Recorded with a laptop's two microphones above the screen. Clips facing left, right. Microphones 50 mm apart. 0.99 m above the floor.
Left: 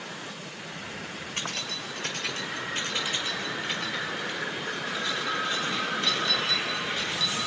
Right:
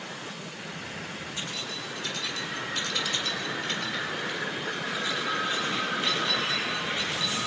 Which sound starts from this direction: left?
Keys jangling, at 1.4 s.